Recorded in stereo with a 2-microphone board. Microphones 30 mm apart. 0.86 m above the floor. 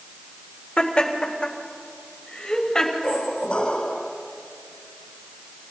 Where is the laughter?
35° left (ahead or behind), 3.5 m; by 2.9 s 20° left (ahead or behind), 5.5 m.